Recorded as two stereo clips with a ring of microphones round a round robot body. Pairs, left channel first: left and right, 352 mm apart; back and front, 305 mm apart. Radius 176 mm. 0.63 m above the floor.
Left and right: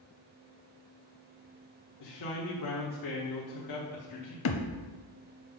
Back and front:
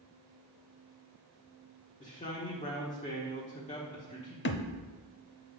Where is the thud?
135° left, 0.6 m.